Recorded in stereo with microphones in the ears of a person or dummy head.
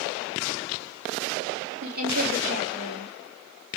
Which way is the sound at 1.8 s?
75° right (ahead or behind).